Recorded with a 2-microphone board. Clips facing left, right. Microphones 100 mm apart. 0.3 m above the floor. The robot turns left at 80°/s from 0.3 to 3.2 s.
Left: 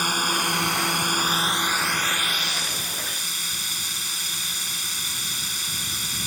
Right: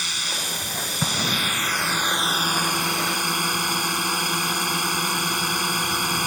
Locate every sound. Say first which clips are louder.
0.0 s a drone: left 8 dB; 125° left; by 6.3 s 105° right
1.0 s an explosion: left 2 dB; 80° right; by 1.8 s 40° right (ahead or behind)